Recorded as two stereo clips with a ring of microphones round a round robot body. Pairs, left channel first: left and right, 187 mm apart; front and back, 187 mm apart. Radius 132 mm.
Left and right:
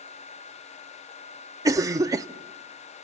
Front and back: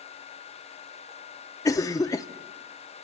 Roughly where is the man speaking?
I don't hear a man speaking.